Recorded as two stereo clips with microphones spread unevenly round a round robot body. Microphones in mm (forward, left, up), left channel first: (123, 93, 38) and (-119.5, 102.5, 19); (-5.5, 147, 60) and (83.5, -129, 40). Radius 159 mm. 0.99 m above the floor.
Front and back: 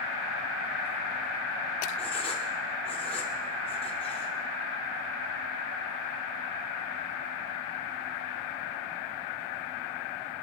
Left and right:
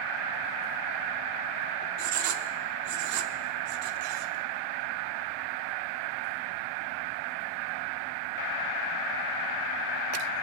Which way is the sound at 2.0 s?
65° right.